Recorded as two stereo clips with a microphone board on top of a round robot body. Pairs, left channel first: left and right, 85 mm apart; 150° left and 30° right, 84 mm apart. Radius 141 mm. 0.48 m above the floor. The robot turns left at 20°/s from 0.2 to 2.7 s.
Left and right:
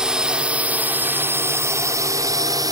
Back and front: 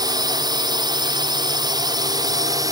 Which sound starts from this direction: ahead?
A drone, at 0.0 s.